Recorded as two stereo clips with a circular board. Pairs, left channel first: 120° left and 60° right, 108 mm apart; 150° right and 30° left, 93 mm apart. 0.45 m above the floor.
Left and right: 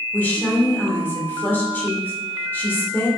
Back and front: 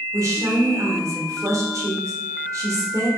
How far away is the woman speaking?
About 1.1 m.